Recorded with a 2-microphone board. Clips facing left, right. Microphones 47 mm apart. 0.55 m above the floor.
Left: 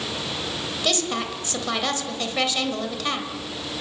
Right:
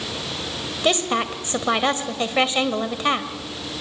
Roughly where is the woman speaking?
Right.